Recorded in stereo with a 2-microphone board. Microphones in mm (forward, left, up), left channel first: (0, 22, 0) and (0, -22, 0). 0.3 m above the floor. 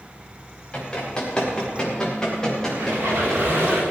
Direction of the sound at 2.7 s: 50° right (ahead or behind).